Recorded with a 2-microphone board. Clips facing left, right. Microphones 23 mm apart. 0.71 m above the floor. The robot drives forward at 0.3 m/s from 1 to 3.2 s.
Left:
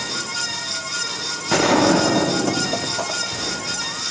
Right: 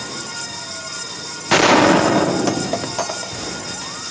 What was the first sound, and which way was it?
A gunshot, 65° right (ahead or behind).